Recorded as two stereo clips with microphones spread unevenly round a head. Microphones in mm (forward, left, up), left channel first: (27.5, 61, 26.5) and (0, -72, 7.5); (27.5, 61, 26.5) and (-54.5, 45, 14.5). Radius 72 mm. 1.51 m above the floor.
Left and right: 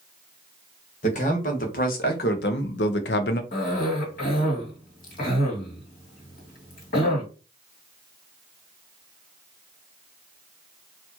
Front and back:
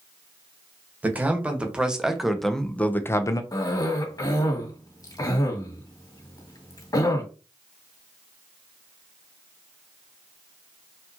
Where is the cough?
55° left, 2.5 m.